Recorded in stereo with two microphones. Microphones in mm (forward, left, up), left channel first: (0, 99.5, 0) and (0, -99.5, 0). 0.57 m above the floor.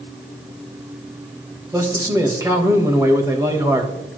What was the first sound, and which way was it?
A man speaking, 15° right (ahead or behind).